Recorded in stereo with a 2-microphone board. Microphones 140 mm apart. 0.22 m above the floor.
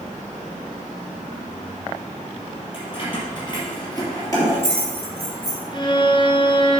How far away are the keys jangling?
About 3.5 m.